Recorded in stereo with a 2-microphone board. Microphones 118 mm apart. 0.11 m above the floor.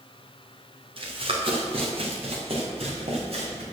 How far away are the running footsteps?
About 3 m.